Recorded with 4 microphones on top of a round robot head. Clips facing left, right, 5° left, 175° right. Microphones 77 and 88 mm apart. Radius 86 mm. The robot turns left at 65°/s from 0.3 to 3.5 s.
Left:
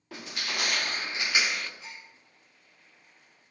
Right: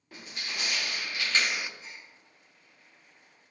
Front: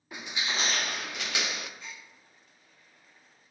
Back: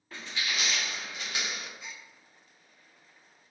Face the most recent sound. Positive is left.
turn(degrees=-10)